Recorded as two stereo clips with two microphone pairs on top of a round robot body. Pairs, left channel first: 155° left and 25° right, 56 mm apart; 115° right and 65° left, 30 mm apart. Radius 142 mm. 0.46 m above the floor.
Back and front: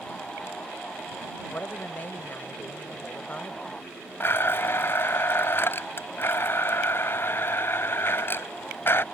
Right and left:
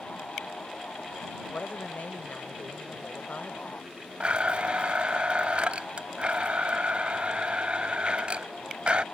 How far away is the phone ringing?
No phone ringing in this recording.